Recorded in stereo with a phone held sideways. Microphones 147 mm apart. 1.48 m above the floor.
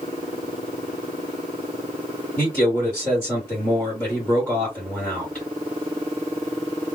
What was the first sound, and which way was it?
A man speaking, 10° left (ahead or behind).